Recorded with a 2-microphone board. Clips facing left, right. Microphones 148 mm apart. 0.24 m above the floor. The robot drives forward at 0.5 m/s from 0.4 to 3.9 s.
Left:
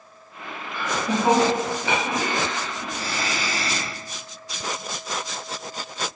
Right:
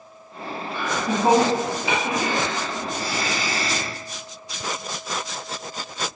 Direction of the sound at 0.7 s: 25° right (ahead or behind).